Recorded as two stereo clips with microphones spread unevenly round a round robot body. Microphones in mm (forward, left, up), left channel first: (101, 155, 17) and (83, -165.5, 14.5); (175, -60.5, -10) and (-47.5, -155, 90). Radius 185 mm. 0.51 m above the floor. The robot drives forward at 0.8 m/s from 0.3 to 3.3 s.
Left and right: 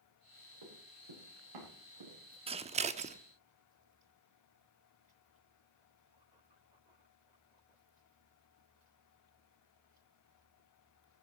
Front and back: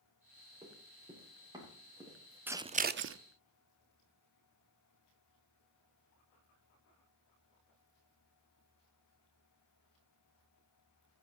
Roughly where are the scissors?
Ahead right.